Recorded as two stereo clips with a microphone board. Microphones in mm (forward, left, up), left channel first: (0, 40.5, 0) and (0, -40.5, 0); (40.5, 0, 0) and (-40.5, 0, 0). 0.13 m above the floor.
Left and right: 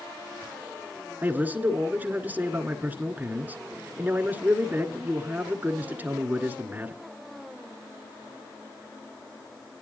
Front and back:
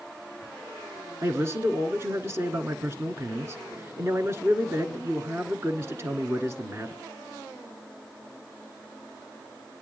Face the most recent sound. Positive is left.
turn(degrees=-145)